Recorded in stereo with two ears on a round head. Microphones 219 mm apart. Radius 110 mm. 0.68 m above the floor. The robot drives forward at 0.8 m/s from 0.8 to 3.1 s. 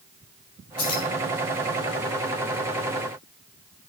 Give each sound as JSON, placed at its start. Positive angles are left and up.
{"t": 0.8, "sound": "keys jangling", "side_deg": 40, "distance_m": 3.5}